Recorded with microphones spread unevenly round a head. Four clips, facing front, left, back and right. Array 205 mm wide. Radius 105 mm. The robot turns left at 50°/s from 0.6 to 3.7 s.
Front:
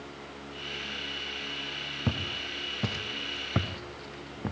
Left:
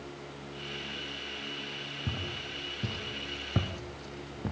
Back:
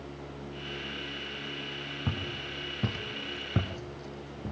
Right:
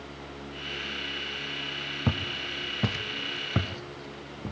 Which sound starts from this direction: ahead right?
Footsteps, at 2.1 s.